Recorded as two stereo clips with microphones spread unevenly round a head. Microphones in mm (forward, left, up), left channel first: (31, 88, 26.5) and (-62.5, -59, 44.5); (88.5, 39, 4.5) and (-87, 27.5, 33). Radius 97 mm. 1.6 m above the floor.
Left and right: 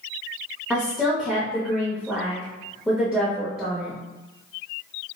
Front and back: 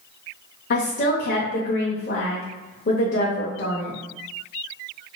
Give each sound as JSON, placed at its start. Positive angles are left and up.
{"t": 0.7, "sound": "a woman speaking", "azimuth_deg": -35, "distance_m": 0.6}